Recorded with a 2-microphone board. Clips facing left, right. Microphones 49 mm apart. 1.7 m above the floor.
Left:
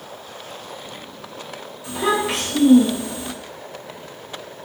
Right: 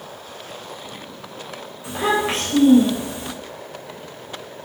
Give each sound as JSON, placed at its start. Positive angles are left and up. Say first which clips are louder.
{"t": 1.8, "sound": "a child speaking", "louder": "even", "side_deg": -35, "distance_m": 1.0}